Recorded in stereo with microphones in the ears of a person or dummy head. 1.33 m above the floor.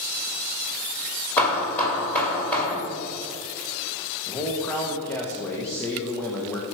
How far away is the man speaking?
About 1.2 m.